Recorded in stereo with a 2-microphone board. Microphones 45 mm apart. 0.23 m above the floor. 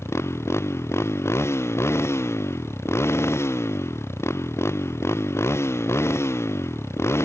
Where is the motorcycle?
90° left.